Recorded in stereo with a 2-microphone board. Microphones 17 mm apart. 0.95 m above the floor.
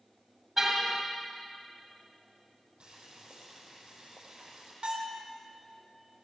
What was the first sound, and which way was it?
A car horn, 20° right (ahead or behind).